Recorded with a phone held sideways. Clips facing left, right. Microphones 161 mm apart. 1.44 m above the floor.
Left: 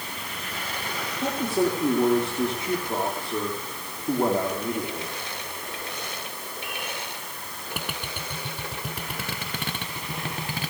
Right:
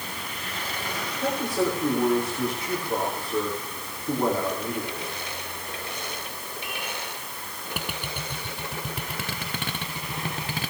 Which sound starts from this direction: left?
A man speaking, at 1.1 s.